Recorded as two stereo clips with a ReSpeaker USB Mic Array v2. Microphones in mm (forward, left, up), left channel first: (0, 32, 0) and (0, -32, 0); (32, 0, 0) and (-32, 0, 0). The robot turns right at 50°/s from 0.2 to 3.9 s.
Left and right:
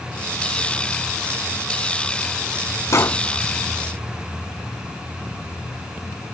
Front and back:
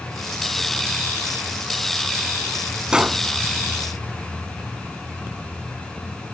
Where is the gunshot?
105° left; by 3.2 s 120° left.